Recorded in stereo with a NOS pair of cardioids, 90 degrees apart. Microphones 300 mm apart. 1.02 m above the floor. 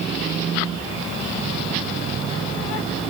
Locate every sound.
Only background noise.